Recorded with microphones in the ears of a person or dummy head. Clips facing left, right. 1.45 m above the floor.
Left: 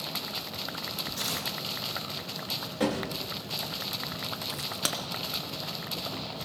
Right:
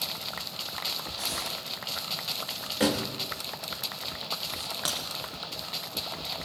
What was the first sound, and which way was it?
Tearing paper, 85° left.